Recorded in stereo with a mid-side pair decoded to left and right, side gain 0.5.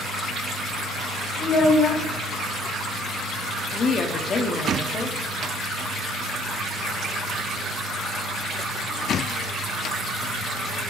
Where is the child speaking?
60° left, 1.7 m.